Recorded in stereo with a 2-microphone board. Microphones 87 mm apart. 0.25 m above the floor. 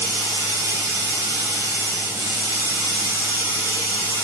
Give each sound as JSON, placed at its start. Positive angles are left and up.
{"t": 0.0, "sound": "running water", "side_deg": -25, "distance_m": 3.0}